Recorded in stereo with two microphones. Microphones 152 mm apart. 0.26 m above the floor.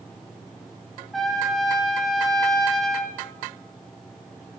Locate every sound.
1.1 s a trumpet: centre (ahead or behind), 2 m